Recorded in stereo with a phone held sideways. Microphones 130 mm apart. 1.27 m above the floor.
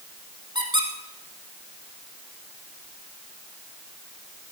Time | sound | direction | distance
0.6 | a squeak | 40° right (ahead or behind) | 2.5 m